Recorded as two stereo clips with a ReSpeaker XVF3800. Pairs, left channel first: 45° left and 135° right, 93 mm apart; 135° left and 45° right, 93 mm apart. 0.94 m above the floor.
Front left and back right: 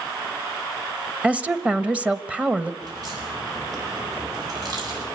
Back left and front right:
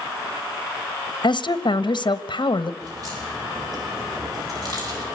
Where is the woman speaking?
150° left, 0.9 m.